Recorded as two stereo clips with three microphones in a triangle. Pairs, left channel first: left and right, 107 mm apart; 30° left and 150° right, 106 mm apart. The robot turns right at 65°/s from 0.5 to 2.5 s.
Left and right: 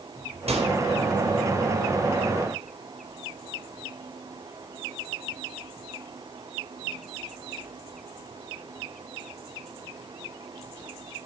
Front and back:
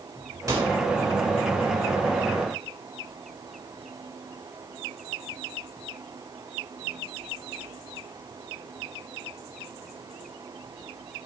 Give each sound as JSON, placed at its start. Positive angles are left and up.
{"t": 0.5, "sound": "a microwave", "azimuth_deg": -95, "distance_m": 4.5}